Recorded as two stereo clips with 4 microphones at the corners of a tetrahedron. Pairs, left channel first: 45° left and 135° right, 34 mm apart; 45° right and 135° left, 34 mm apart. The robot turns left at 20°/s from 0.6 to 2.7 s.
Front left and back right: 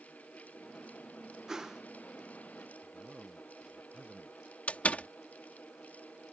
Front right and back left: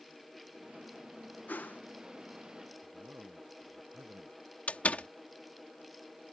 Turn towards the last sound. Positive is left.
turn(degrees=0)